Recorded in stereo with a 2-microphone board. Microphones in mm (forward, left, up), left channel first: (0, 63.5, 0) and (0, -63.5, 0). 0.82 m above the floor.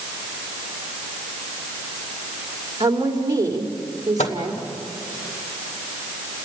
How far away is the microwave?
About 2 m.